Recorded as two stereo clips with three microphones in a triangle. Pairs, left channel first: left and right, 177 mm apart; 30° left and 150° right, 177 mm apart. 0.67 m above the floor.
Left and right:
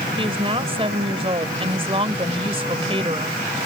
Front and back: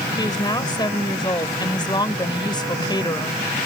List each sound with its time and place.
0.2 s a woman speaking: 35° right